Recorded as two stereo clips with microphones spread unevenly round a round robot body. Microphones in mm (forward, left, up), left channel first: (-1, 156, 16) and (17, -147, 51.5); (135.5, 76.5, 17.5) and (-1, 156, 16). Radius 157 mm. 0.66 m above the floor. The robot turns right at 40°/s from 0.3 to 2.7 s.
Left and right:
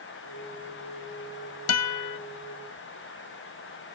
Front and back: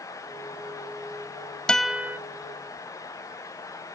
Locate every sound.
1.7 s a guitar: 55° left; by 2.2 s 75° left